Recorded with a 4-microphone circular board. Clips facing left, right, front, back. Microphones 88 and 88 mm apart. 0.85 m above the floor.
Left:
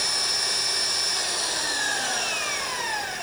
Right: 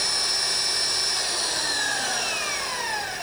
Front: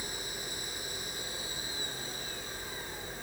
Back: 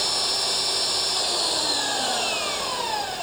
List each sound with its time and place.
0.0 s an engine running: straight behind